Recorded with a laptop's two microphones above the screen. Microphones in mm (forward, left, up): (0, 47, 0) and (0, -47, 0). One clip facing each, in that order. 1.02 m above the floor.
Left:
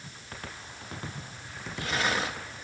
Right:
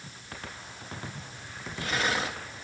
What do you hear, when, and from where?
Only background noise.